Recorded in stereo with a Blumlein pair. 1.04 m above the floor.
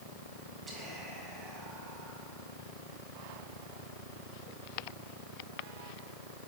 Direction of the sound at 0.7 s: 10° right.